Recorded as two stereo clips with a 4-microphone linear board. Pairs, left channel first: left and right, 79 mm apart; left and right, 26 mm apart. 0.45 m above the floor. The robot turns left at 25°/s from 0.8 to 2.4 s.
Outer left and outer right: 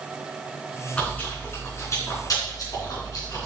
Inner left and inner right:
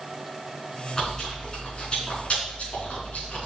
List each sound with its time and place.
0.9 s chewing: 15° left (ahead or behind), 3.5 m; by 3.5 s 50° left (ahead or behind), 3.5 m